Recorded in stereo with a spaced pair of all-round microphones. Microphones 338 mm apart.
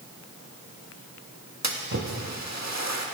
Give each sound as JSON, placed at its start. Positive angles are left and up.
{"t": 1.6, "sound": "a splash", "side_deg": -55, "distance_m": 1.6}